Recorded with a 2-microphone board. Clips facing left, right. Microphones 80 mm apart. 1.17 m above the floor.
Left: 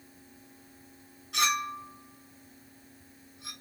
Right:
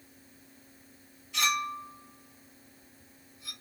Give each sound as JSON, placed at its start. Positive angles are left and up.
{"t": 1.3, "sound": "a clink", "side_deg": 75, "distance_m": 2.5}